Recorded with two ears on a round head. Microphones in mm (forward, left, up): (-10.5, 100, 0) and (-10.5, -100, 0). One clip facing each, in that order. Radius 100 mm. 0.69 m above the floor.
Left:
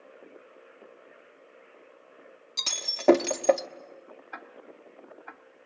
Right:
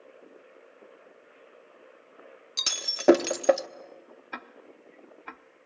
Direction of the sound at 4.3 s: 40° right (ahead or behind).